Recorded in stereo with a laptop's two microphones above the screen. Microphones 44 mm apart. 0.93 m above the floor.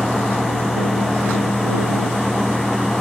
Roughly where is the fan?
Centre.